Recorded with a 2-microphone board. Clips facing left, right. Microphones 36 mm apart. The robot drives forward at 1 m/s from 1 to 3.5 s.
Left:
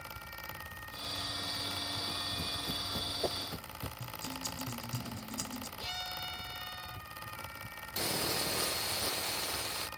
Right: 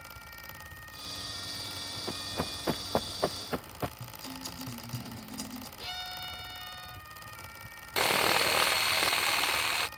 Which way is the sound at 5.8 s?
10° right (ahead or behind).